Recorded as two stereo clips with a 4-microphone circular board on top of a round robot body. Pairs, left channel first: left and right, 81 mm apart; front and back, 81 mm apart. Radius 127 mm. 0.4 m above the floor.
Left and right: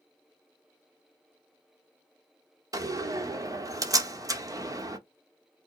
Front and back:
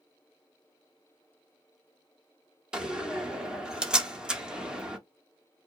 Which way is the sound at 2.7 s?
105° right.